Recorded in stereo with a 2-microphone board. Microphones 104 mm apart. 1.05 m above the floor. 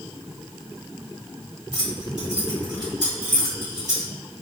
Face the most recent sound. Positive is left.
turn(degrees=-40)  # may be behind; listen again after turning